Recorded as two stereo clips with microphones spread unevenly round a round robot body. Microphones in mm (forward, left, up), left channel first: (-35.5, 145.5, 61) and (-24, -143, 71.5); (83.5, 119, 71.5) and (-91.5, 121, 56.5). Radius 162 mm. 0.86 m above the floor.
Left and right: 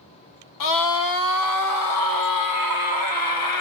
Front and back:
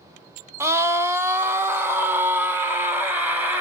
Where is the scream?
105° left, 2 m; by 3.6 s 100° left, 4 m.